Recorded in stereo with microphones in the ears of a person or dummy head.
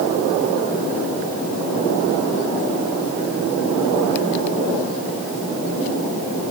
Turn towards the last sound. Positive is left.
No sound to turn to.